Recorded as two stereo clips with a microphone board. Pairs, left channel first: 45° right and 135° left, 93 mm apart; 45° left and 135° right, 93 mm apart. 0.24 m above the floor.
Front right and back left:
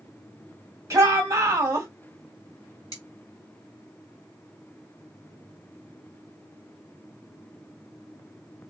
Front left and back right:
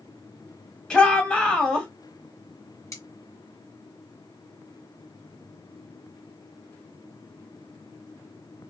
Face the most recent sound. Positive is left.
turn(degrees=-5)